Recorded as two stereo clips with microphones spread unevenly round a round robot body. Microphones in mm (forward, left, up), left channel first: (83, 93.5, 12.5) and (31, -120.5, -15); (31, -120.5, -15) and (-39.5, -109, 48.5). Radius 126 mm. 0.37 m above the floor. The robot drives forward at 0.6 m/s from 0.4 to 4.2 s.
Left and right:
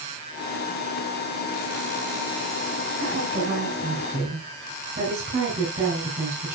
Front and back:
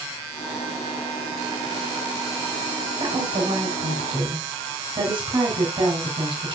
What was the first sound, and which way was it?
A woman speaking, 160° right.